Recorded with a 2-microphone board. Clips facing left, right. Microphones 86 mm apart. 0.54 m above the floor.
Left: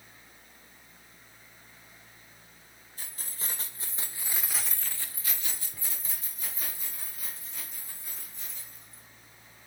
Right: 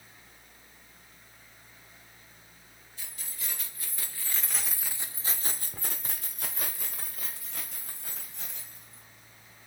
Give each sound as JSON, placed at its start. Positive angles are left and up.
{"t": 3.0, "sound": "keys jangling", "side_deg": 40, "distance_m": 1.4}